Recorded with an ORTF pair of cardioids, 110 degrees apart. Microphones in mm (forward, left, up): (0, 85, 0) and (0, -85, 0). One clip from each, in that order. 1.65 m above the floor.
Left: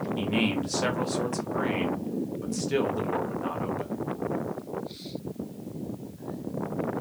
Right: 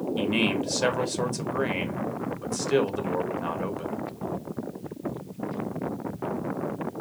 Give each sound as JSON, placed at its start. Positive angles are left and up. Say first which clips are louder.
{"t": 0.2, "sound": "a man speaking", "louder": "right 3 dB", "azimuth_deg": -20, "distance_m": 0.8}